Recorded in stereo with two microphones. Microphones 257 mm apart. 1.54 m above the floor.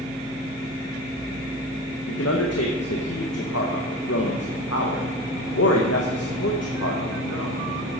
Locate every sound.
2.1 s a man speaking: 70° left (ahead or behind), 1.7 m